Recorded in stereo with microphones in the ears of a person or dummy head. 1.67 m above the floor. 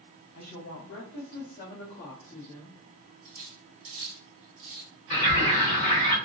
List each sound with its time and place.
0.3 s a woman speaking: 75° left (ahead or behind), 1.2 m; by 2.8 s 15° left (ahead or behind), 1.3 m
3.2 s cutlery clinking: 60° right (ahead or behind), 1.7 m
5.1 s a bird: 30° left (ahead or behind), 1.4 m